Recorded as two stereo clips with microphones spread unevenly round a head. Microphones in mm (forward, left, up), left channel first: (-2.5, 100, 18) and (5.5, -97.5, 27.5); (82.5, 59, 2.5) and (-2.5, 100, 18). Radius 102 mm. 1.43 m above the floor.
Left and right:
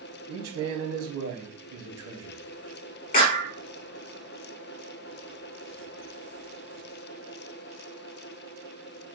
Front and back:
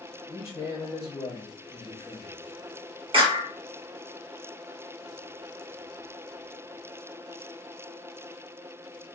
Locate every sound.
0.3 s a man speaking: 95° right, 1.4 m
3.1 s a clap: 140° left, 1.2 m